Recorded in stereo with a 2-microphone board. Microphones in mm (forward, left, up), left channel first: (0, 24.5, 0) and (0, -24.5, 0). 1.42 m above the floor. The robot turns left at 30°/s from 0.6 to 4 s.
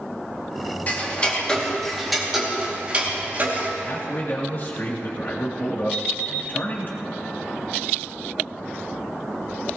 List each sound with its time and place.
0.9 s ticking: 35° left (ahead or behind), 2.5 m; by 3.7 s 50° right (ahead or behind), 2.5 m
3.9 s a man speaking: 50° left (ahead or behind), 3 m; by 6.9 s 45° left (ahead or behind), 3 m
5.9 s an alarm clock: 15° left (ahead or behind), 2 m